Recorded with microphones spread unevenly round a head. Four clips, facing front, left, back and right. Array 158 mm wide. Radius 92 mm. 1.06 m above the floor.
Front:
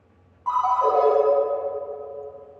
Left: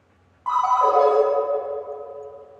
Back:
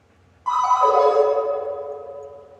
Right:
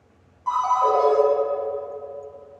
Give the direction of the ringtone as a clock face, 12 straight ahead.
8 o'clock.